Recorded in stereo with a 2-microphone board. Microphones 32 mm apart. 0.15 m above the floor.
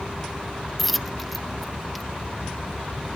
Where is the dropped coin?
Centre (ahead or behind).